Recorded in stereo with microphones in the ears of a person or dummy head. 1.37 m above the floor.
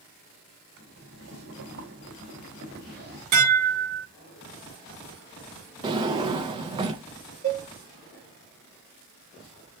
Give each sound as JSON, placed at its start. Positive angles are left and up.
{"t": 0.8, "sound": "boiling", "side_deg": -60, "distance_m": 3.0}
{"t": 3.3, "sound": "dishes clattering", "side_deg": -65, "distance_m": 2.5}
{"t": 5.8, "sound": "a drawer", "side_deg": -20, "distance_m": 0.6}
{"t": 7.4, "sound": "a cowbell", "side_deg": -35, "distance_m": 3.0}